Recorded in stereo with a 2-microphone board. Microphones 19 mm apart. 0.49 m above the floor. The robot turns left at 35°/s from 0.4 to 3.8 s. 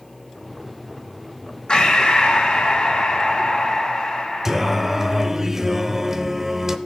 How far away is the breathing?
About 2 m.